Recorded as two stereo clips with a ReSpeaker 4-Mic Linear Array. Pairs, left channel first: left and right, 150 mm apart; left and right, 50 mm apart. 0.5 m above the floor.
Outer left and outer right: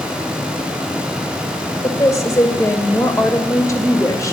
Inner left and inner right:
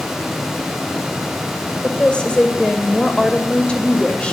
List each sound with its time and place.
1.8 s a woman speaking: 20° left (ahead or behind), 1.5 m